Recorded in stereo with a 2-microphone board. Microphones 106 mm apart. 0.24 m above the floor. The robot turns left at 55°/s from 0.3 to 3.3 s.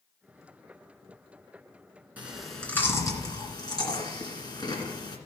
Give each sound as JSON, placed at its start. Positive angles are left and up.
{"t": 2.2, "sound": "chewing", "side_deg": -15, "distance_m": 2.0}